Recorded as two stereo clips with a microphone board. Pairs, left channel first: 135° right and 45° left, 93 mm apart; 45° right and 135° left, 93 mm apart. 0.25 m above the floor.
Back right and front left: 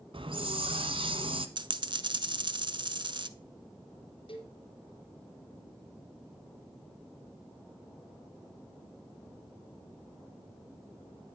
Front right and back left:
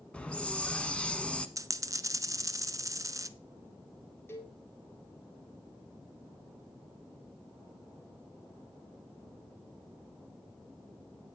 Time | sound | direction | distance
0.1 | a hiss | 35° left | 1.0 m
1.6 | a dropped coin | 80° left | 0.5 m
4.3 | a cowbell | 110° right | 3 m